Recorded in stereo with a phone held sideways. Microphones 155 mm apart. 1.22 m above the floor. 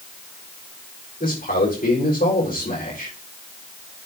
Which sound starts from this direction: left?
A man speaking, at 1.2 s.